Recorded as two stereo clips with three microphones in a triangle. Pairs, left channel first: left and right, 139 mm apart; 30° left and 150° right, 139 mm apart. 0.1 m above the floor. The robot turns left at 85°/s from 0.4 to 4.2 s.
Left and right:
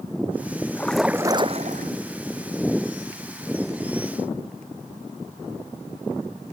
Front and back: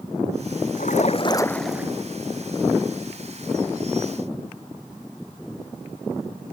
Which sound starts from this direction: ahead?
A splash, at 0.8 s.